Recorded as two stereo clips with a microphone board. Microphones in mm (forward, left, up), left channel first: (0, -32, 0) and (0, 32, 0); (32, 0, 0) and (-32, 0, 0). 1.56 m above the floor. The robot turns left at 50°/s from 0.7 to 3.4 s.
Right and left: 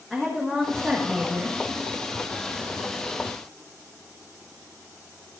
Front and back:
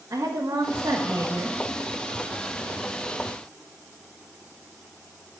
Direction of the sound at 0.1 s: Straight behind.